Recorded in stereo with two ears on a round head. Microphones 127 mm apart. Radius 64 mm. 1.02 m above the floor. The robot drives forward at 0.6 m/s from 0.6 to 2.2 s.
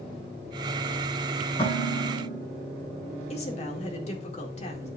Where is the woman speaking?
45° left (ahead or behind), 2.0 m.